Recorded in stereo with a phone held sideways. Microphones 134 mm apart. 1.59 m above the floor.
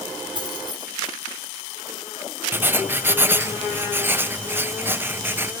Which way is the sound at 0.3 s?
35° right (ahead or behind).